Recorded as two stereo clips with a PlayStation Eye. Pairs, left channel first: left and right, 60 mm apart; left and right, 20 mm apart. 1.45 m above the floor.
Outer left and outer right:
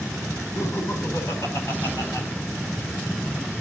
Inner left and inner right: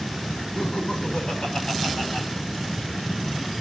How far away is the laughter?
About 4.5 m.